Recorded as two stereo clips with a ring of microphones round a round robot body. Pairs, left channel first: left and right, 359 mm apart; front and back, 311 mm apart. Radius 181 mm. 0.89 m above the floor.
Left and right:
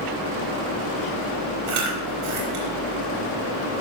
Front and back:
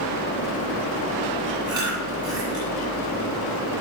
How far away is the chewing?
About 4.5 m.